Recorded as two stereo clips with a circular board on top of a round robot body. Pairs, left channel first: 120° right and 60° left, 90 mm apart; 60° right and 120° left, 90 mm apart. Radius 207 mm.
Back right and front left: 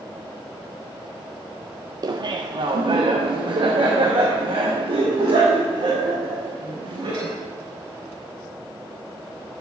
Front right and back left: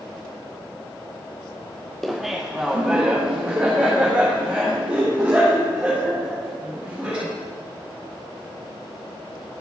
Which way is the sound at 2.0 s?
30° left.